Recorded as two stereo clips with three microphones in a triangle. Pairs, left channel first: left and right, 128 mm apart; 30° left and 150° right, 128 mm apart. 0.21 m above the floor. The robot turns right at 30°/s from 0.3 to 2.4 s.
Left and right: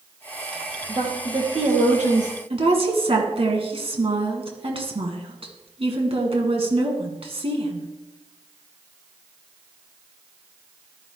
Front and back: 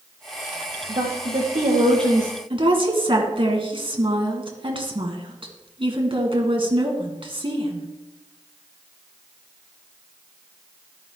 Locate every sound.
0.9 s a woman speaking: 145° right, 4.5 m; by 2.3 s 100° right, 4.5 m
2.5 s a woman speaking: 115° right, 2 m